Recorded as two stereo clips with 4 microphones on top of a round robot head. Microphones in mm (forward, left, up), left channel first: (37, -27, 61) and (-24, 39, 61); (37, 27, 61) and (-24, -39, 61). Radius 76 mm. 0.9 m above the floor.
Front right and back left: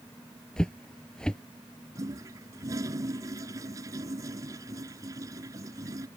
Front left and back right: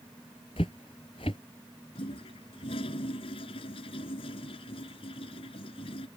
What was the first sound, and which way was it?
Footsteps, 30° left.